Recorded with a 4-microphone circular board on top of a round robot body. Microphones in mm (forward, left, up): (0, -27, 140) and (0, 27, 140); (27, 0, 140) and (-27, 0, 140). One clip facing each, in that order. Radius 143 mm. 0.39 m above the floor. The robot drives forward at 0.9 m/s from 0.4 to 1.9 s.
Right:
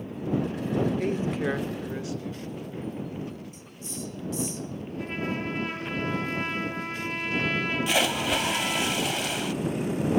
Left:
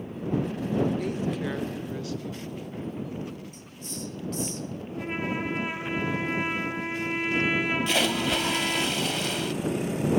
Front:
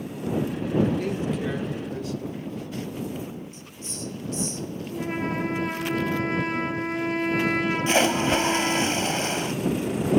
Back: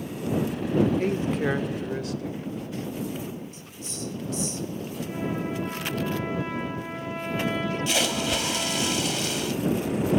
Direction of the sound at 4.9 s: 20° left.